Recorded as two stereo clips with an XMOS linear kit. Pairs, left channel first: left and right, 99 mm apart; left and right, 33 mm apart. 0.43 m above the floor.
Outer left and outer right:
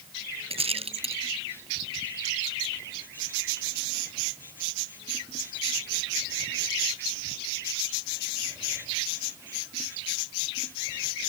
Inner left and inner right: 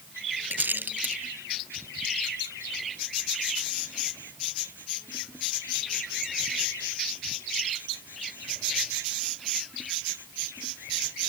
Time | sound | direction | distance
0.5 | a rattle | 80° right | ?